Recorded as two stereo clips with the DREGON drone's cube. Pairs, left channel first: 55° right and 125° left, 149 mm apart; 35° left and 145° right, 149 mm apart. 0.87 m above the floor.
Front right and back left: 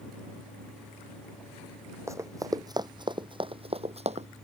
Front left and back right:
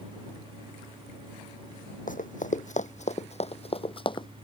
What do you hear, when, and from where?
2.1 s running footsteps: 55° left; by 4.3 s 90° left